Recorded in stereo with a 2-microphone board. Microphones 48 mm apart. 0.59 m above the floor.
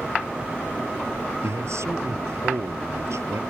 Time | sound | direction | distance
1.4 | a man speaking | 70° right (ahead or behind) | ?